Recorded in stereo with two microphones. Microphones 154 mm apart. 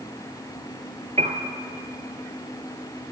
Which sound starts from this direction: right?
A piano, at 1.2 s.